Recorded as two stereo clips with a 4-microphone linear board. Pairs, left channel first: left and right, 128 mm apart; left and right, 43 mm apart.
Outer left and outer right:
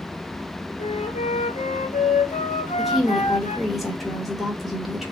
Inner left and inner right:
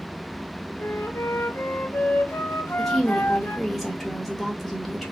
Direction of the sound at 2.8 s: Centre (ahead or behind).